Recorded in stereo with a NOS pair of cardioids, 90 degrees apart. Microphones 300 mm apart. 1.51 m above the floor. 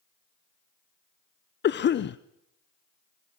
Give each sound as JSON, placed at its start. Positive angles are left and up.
{"t": 1.6, "sound": "a cough", "azimuth_deg": 40, "distance_m": 0.6}